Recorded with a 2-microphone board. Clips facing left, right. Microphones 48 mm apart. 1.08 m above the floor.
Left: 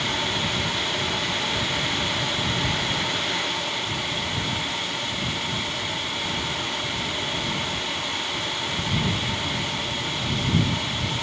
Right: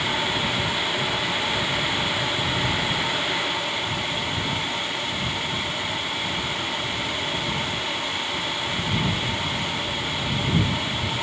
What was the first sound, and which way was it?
Only background noise.